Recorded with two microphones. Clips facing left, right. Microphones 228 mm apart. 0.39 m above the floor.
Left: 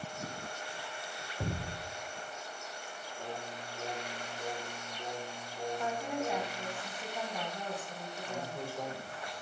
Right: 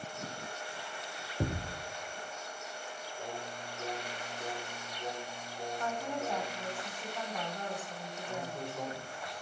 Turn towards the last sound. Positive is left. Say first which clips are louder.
# even
turn(degrees=5)  # may be behind; listen again after turning